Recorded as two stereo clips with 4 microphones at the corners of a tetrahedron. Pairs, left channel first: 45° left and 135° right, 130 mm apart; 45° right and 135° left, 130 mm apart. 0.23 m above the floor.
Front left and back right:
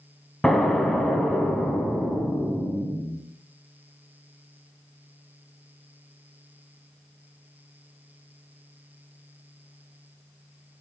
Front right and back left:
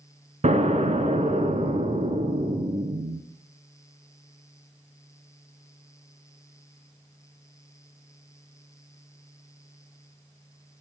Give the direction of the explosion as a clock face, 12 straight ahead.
8 o'clock.